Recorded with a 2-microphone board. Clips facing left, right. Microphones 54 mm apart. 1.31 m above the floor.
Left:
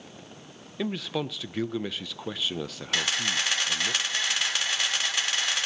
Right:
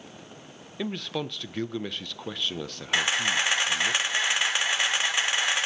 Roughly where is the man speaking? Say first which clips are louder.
Left 1 dB; centre.